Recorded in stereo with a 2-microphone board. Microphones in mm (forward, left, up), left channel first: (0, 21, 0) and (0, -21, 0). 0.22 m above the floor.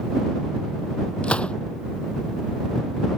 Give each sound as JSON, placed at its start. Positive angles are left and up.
{"t": 1.2, "sound": "a gunshot", "side_deg": 30}